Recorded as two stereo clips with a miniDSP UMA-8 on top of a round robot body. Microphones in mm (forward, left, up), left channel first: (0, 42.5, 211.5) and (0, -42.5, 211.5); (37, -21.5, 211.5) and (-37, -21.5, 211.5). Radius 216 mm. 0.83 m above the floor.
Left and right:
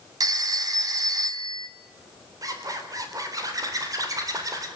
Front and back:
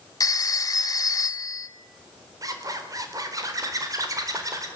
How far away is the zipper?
About 4 m.